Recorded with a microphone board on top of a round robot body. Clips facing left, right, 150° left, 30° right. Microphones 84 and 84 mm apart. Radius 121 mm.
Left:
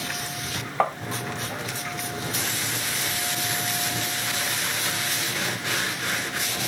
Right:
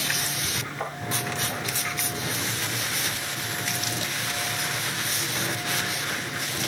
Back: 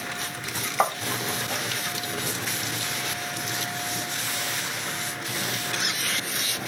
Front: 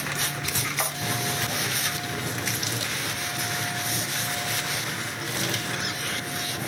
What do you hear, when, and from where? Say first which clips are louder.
0.8 s tapping: left 11 dB, back 11 dB; 105° left, 0.6 m